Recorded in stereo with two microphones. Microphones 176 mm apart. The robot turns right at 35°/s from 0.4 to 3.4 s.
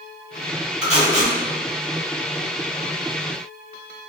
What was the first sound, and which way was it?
Tape being pulled, 35° left (ahead or behind).